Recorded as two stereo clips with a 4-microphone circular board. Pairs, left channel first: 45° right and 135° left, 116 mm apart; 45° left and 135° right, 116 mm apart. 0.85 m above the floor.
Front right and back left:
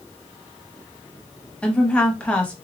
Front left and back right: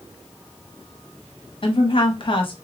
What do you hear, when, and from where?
1.6 s a woman speaking: 30° left, 1.0 m